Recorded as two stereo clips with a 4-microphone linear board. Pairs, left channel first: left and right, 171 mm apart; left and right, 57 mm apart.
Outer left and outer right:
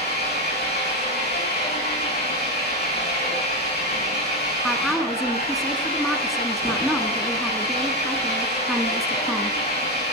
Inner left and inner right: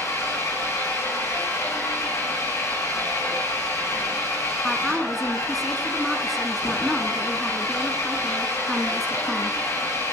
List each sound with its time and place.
0.0 s an engine running: 70° left (ahead or behind), 7.5 m
4.6 s a woman speaking: centre (ahead or behind), 1.2 m